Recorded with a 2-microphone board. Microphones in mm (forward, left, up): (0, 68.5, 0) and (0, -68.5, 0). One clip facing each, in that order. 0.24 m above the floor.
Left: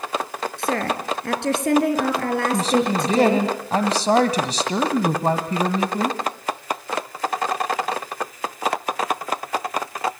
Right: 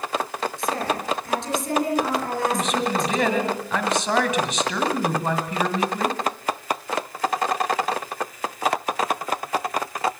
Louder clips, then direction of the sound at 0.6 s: Left 3 dB; 70° left (ahead or behind).